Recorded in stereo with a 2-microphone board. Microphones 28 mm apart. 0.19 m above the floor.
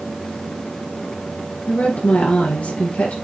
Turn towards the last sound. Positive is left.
turn(degrees=65)  # may be behind; listen again after turning